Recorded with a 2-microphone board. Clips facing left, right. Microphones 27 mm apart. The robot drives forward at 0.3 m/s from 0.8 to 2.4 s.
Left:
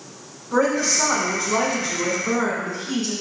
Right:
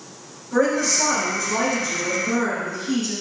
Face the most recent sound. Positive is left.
turn(degrees=40)  # may be behind; listen again after turning